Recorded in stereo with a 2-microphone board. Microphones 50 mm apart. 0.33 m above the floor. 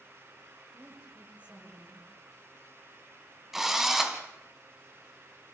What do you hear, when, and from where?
0.7 s a woman speaking: 30° right (ahead or behind), 8.5 m
3.5 s a drill: 10° right (ahead or behind), 2 m